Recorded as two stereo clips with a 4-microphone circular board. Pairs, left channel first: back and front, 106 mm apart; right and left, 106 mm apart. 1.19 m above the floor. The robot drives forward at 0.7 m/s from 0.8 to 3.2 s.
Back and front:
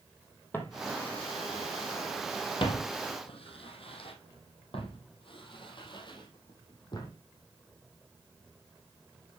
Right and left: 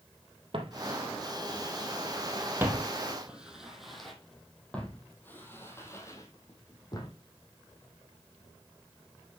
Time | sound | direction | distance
0.5 | footsteps | 110° left | 2.5 m